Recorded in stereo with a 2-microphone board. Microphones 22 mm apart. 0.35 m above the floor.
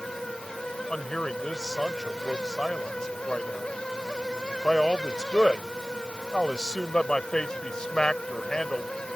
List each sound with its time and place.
0.9 s a man speaking: 35° left (ahead or behind)